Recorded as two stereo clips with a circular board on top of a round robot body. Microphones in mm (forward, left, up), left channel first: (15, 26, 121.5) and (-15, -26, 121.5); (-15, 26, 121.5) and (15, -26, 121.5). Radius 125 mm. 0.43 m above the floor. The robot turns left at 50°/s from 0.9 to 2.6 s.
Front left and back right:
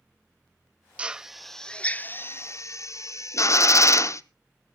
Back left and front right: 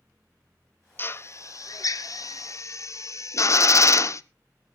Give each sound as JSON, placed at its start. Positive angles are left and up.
{"t": 1.0, "sound": "a drill", "azimuth_deg": 170, "distance_m": 0.6}